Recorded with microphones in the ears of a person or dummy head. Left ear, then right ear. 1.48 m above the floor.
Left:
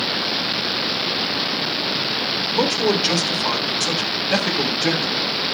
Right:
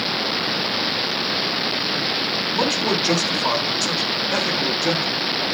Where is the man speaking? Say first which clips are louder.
Left 3 dB; 50° left (ahead or behind), 5 m; by 5.0 s 65° left (ahead or behind), 5 m.